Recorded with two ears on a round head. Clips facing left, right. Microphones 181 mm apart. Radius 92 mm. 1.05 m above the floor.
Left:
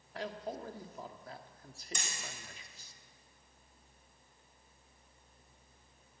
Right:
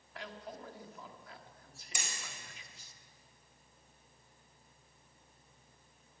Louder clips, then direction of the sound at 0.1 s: Left 6 dB; 35° left (ahead or behind).